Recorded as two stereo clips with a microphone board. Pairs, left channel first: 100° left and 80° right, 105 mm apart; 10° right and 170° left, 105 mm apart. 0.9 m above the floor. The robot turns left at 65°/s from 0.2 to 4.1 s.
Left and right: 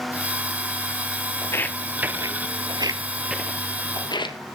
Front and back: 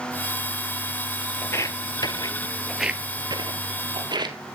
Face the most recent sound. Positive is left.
turn(degrees=130)